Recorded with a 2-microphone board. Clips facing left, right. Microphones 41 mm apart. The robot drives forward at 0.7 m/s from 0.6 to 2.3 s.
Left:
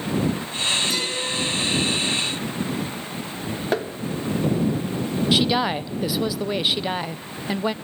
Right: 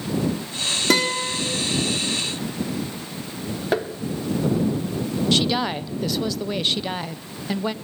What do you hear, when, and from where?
0.9 s a guitar: 70° right (ahead or behind), 4 m; by 1.4 s 65° right (ahead or behind), 4.5 m
3.7 s tapping: 5° right (ahead or behind), 1.3 m
5.3 s a woman speaking: 10° left (ahead or behind), 0.7 m